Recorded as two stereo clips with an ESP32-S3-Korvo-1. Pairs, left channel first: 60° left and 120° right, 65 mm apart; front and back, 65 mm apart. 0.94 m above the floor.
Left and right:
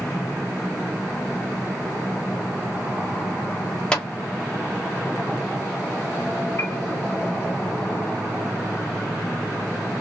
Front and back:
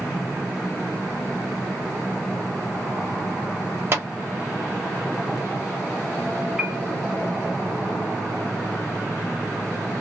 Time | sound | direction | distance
3.9 | a clap | 135° left | 0.9 m
6.6 | a piano | 105° left | 0.7 m